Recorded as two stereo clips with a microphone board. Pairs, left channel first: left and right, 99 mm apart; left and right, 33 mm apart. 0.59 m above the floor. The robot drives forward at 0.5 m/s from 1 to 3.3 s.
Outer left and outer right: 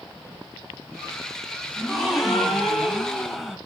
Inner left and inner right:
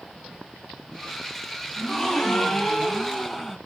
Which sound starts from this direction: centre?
A gasp, at 1.8 s.